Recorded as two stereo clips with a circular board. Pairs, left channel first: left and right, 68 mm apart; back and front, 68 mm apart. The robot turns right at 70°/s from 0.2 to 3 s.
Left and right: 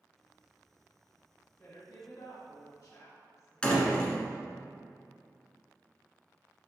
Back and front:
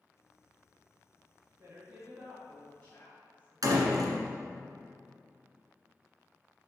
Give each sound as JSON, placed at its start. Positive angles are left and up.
{"t": 1.6, "sound": "a woman speaking", "azimuth_deg": 25, "distance_m": 2.5}
{"t": 3.6, "sound": "a door slam", "azimuth_deg": 15, "distance_m": 1.7}